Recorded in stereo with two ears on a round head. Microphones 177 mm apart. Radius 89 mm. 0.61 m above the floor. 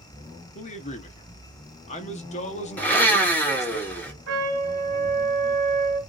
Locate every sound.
0.6 s a man speaking: 35° left (ahead or behind), 0.6 m
2.8 s a blender: 10° left (ahead or behind), 0.8 m
4.3 s a trumpet: 70° right (ahead or behind), 1.8 m